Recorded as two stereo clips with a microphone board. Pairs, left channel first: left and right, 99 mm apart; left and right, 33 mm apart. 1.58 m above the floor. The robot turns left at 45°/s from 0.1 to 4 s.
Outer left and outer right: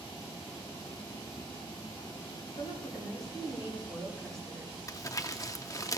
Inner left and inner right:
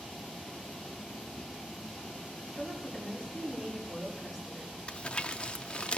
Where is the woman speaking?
70° left, 5.5 m; by 4.8 s 5° left, 5.5 m.